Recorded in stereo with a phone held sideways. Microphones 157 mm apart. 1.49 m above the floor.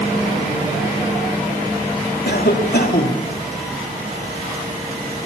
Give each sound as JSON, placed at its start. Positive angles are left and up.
{"t": 2.2, "sound": "a cough", "side_deg": 90, "distance_m": 4.0}